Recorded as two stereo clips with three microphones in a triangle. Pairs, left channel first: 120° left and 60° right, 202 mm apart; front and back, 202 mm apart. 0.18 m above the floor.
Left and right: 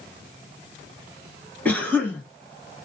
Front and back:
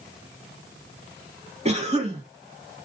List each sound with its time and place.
1.6 s a cough: 165° right, 1.3 m